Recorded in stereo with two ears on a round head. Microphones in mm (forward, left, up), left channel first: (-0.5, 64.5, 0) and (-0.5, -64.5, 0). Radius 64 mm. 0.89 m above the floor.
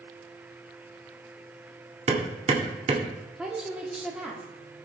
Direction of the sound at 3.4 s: 5° right (ahead or behind).